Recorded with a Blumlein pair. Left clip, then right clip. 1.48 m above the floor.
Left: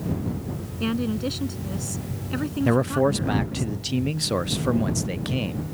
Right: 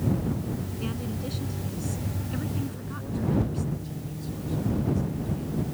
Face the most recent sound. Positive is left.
turn(degrees=45)